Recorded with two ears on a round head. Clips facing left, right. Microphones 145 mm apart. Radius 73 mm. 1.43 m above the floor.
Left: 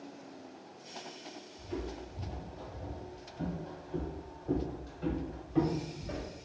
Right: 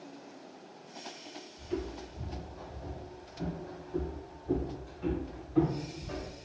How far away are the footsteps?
About 1.7 m.